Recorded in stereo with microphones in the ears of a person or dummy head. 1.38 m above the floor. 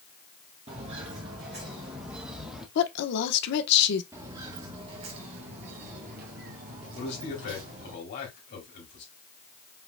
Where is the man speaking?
55° left (ahead or behind), 3 m.